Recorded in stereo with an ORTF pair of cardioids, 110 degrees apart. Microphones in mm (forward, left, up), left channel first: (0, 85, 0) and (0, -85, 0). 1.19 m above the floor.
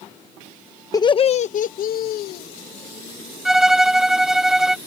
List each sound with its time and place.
0.9 s laughter: 20° left; by 2.5 s 75° left
3.5 s a violin: 5° right